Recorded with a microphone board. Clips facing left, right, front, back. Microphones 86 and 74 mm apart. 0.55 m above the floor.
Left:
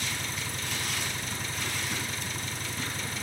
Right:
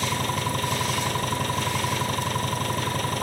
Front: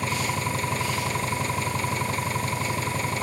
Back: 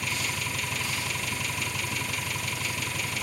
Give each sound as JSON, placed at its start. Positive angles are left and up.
{"t": 0.0, "sound": "an engine running", "azimuth_deg": -55}